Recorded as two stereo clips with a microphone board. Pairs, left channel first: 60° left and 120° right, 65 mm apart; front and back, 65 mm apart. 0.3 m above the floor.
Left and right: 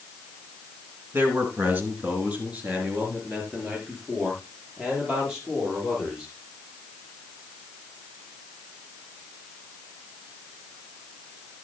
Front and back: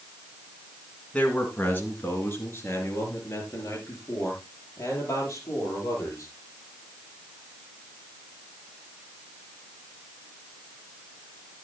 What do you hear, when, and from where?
1.1 s a man speaking: 65° right, 3 m; by 6.3 s 40° right, 8.5 m